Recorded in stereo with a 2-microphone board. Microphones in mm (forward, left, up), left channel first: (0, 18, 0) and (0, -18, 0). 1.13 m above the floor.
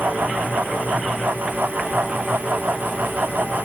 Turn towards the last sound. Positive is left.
No sound to turn to.